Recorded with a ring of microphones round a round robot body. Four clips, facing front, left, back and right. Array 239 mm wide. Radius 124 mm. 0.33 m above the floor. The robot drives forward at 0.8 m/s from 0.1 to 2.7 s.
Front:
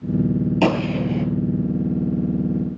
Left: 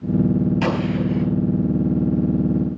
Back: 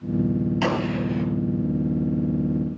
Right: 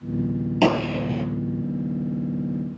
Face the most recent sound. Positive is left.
turn(degrees=-70)